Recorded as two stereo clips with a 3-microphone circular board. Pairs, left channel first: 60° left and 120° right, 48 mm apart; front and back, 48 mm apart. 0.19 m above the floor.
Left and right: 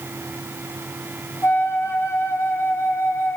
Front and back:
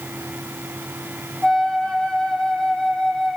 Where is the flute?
75° left, 2.5 m.